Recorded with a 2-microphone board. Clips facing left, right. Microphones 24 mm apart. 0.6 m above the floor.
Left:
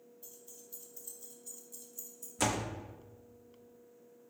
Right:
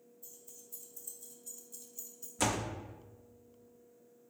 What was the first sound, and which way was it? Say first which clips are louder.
Keys jangling: even; 45° left (ahead or behind).